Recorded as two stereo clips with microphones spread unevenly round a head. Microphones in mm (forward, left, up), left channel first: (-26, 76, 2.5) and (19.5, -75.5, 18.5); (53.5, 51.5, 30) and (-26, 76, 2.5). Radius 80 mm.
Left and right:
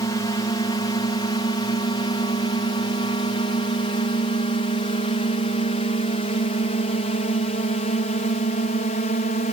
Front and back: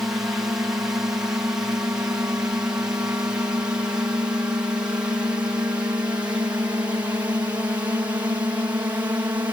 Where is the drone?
130° left; by 9.5 s 125° left.